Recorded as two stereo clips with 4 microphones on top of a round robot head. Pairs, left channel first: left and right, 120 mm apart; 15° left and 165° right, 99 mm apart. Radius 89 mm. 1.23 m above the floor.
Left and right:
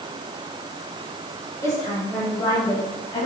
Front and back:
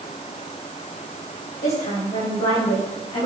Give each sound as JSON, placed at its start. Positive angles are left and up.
{"t": 1.6, "sound": "a woman speaking", "azimuth_deg": 30, "distance_m": 5.0}